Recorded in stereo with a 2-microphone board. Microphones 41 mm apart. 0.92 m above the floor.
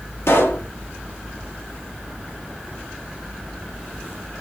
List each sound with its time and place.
0.3 s a pop: 80° left, 1.2 m